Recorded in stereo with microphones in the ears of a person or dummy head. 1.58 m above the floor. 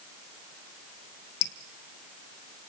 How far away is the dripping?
About 1.2 m.